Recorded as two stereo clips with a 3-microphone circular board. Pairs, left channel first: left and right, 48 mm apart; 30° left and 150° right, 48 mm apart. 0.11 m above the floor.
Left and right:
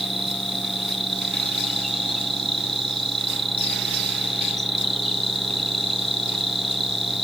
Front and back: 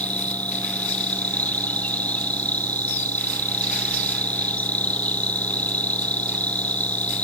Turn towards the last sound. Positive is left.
turn(degrees=5)